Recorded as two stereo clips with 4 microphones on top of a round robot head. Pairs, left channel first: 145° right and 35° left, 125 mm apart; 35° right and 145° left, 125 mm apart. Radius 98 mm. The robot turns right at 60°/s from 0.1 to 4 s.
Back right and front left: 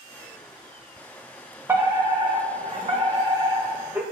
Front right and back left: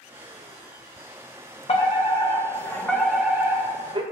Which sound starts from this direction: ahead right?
A fire alarm, at 1.7 s.